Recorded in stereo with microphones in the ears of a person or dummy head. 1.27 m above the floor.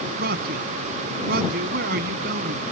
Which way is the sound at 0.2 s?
55° right (ahead or behind).